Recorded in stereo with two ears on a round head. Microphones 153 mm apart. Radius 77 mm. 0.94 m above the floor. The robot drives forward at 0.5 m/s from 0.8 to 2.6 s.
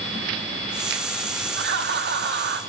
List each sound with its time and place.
1.6 s laughter: 70° right (ahead or behind), 2 m; by 2.6 s 65° right (ahead or behind), 2.5 m